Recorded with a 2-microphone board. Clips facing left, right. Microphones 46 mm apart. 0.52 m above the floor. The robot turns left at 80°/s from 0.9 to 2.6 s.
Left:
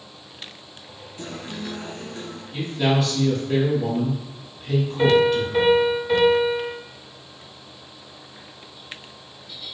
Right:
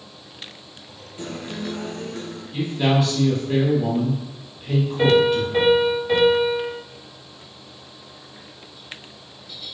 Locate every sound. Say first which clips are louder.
1.2 s a guitar: right 3 dB; 20° right, 1.2 m; by 2.4 s 120° right, 1.2 m
2.5 s a man speaking: right 1 dB; 5° right (ahead or behind), 1.0 m; by 5.7 s 10° right (ahead or behind), 1.0 m
5.0 s a piano: even; 15° right (ahead or behind), 1.1 m